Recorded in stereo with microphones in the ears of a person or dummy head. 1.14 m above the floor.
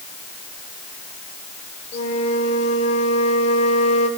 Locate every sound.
1.9 s a flute: 40° left (ahead or behind), 3 m